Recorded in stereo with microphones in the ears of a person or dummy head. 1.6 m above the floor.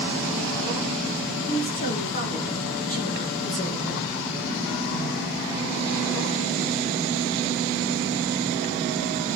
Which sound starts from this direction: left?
A woman speaking, at 1.4 s.